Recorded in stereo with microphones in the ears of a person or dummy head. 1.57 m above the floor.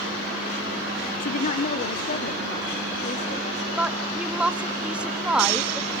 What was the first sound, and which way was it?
A woman speaking, 45° left (ahead or behind).